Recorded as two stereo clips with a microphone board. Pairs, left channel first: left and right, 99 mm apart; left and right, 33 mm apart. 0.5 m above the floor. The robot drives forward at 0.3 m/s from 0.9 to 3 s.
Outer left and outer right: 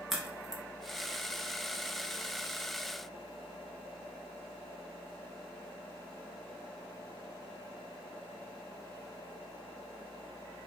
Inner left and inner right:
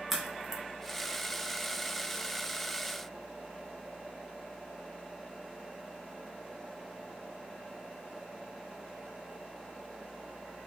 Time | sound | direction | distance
0.1 | a crack | 5° right (ahead or behind) | 0.6 m